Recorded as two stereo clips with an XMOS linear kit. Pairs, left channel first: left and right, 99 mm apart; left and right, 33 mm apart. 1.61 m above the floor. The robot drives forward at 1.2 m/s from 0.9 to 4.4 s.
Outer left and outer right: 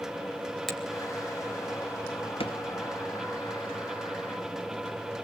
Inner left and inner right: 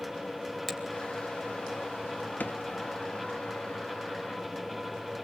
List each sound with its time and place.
0.7 s a finger snap: centre (ahead or behind), 3 m
2.4 s a drawer: 65° left (ahead or behind), 1.7 m